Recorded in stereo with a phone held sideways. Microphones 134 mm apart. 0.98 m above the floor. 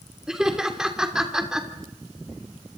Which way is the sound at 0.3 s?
5° right (ahead or behind).